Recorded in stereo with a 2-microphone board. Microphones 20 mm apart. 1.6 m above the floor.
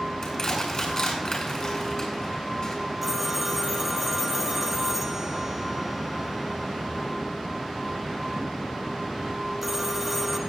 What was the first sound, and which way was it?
Crushing, 35° left (ahead or behind).